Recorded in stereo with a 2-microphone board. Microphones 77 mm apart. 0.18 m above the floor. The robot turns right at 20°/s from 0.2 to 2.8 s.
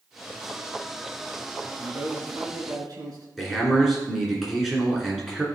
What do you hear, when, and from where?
1.8 s a man speaking: 50° right (ahead or behind), 2 m; by 3.3 s 55° right (ahead or behind), 2 m
3.4 s a man speaking: centre (ahead or behind), 2.5 m